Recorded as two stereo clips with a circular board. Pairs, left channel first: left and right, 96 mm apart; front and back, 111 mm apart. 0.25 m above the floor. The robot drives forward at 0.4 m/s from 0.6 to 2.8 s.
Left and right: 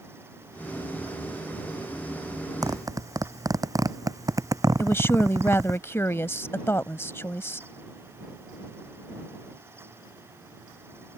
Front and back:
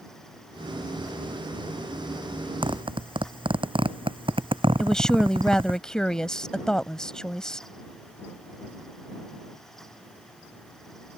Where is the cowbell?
I don't hear a cowbell.